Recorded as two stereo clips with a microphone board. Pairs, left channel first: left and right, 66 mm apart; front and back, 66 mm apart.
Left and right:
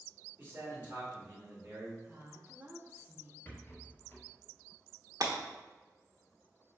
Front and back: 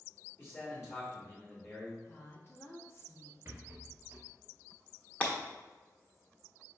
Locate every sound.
0.4 s a man speaking: 40° right, 1.8 m
2.1 s a woman speaking: 35° right, 1.1 m
3.5 s a rattle: 135° left, 1.2 m
5.2 s breaking glass: 65° right, 1.0 m